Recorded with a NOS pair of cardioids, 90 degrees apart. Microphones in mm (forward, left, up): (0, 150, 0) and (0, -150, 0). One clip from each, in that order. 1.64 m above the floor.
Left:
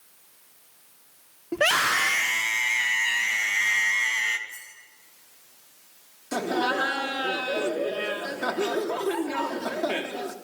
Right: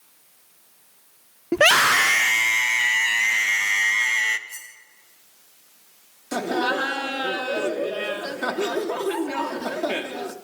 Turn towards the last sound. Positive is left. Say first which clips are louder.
# right 2 dB
turn(degrees=-15)